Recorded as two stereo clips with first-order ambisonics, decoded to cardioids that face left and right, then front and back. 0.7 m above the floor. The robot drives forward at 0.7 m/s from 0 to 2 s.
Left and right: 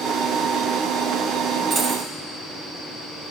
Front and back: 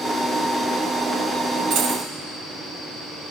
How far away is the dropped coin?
About 0.7 m.